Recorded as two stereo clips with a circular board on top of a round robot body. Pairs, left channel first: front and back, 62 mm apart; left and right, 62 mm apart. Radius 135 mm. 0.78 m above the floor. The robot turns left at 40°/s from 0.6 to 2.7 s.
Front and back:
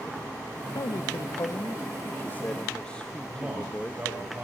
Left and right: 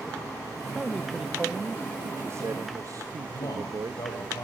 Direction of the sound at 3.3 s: 115° left.